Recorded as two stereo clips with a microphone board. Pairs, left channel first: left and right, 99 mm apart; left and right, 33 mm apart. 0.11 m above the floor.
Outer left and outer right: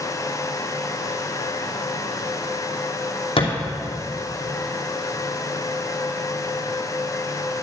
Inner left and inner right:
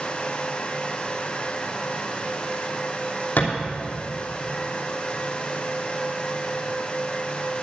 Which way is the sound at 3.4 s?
60° left (ahead or behind).